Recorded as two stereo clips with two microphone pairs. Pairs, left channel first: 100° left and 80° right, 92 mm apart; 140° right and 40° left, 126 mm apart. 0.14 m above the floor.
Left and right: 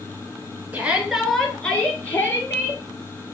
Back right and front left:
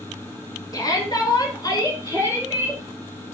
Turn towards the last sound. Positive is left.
turn(degrees=160)